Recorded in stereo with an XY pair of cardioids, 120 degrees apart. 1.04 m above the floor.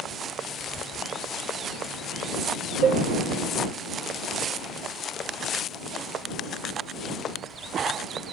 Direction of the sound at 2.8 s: 45° right.